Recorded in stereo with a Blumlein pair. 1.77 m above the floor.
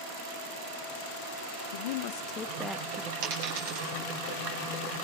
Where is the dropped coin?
45° right, 7 m.